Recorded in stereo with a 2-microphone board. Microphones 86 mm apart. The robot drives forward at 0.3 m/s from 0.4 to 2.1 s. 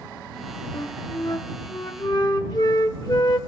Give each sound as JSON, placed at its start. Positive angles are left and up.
{"t": 0.7, "sound": "a flute", "side_deg": 45, "distance_m": 0.9}